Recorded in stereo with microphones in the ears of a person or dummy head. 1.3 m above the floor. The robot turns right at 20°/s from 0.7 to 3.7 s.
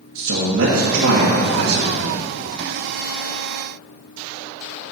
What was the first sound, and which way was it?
A man speaking, 65° right (ahead or behind).